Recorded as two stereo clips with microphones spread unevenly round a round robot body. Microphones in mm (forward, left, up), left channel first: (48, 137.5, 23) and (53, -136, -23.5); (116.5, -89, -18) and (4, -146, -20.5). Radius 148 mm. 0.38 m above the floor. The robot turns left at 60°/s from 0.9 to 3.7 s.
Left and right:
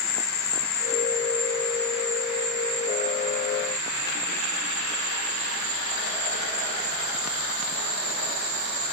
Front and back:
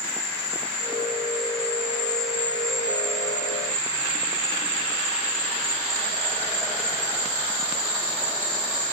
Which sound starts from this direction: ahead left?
An insect, at 0.0 s.